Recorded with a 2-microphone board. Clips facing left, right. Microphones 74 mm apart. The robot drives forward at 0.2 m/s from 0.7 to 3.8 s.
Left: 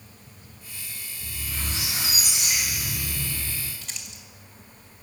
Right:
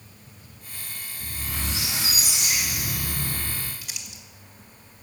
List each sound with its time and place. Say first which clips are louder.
1.2 s a squeak: right 2 dB; 85° right, 6 m; by 3.7 s 80° right, 6 m
3.8 s crumpling: even; 10° right (ahead or behind), 2.5 m